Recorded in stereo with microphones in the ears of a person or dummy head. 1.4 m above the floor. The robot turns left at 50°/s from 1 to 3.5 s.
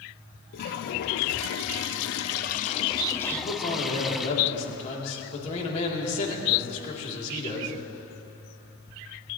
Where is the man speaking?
50° left (ahead or behind), 3 m; by 7.7 s 40° left (ahead or behind), 3 m.